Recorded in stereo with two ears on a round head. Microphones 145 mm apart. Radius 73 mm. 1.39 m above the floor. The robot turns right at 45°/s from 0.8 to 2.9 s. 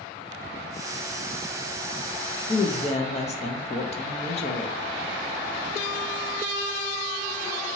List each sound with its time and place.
2.5 s a woman speaking: 25° left (ahead or behind), 0.5 m; by 4.8 s 40° left (ahead or behind), 0.5 m